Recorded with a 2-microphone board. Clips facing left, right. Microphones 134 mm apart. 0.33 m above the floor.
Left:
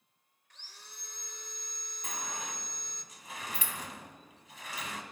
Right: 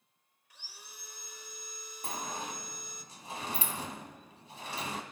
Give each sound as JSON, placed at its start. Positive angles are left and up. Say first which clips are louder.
{"t": 0.5, "sound": "sawing", "louder": "right 1 dB", "side_deg": -10, "distance_m": 1.0}
{"t": 2.0, "sound": "a sliding door", "louder": "right 3 dB", "side_deg": -35, "distance_m": 1.6}